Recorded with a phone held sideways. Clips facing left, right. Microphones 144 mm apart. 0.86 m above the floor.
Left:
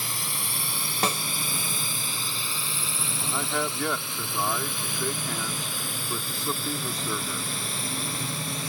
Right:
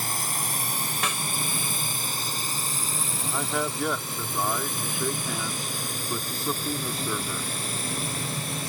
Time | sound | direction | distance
0.0 | a drone | 45° right (ahead or behind) | ?
1.0 | a snare drum | 35° left (ahead or behind) | ?
3.2 | a man speaking | 5° right (ahead or behind) | ?